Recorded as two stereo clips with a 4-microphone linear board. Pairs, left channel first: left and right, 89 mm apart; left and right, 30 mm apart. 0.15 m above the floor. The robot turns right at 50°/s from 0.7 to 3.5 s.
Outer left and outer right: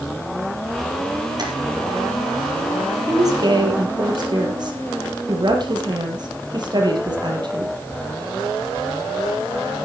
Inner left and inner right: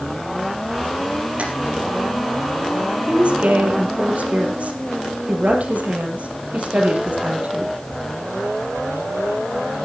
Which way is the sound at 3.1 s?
35° right (ahead or behind).